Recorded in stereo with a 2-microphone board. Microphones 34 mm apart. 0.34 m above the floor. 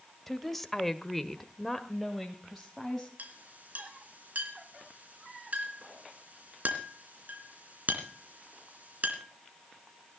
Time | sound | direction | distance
0.3 | a woman speaking | 5° left (ahead or behind) | 1.2 m
3.2 | a clink | 50° right (ahead or behind) | 2.5 m